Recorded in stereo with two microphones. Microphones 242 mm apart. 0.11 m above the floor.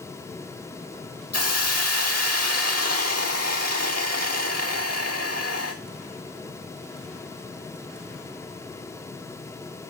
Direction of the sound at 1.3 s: 85° left.